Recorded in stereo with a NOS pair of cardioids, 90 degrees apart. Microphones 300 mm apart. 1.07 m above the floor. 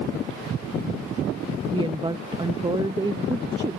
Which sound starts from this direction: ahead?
A woman speaking, at 1.7 s.